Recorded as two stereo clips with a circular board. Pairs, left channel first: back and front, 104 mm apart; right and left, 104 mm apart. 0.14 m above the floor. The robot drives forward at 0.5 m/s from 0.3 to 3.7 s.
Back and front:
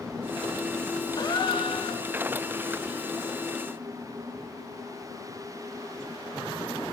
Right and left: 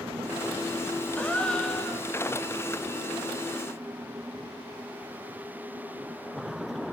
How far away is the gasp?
About 0.8 m.